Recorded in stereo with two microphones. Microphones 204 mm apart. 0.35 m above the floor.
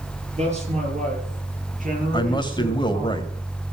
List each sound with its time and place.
0.4 s a man speaking: 30° right (ahead or behind), 6.5 m; by 3.1 s 50° right (ahead or behind), 7.5 m
2.1 s a man speaking: 20° left (ahead or behind), 1.7 m